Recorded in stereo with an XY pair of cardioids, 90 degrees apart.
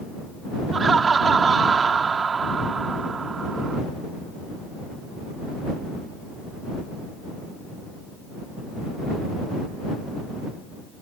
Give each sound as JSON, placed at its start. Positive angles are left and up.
{"t": 0.7, "sound": "laughter", "azimuth_deg": -45}